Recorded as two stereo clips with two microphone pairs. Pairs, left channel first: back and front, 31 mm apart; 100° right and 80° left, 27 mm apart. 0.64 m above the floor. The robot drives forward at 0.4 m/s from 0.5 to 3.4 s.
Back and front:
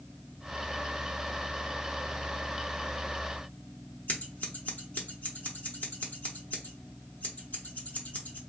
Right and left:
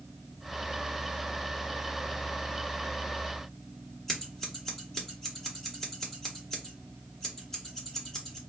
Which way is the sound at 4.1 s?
175° right.